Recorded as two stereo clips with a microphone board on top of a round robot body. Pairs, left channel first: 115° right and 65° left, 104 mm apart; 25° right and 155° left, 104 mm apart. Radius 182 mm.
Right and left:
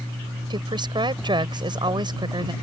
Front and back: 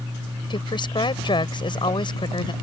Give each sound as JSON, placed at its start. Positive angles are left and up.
{"t": 0.5, "sound": "a woman speaking", "azimuth_deg": 20}